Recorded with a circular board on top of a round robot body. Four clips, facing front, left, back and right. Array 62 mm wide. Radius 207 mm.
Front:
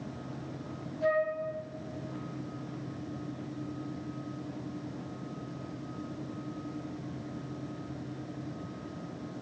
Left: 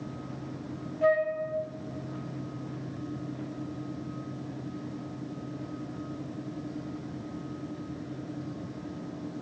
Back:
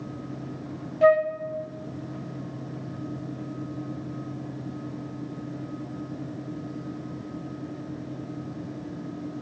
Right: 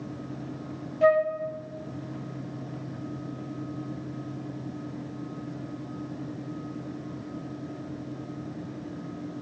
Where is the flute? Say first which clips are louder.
Right 4 dB, back 10 dB; 155° right, 3 m.